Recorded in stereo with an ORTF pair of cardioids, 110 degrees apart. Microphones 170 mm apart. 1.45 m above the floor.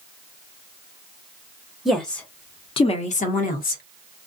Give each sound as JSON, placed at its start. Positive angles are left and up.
{"t": 1.9, "sound": "a woman speaking", "azimuth_deg": 0, "distance_m": 0.8}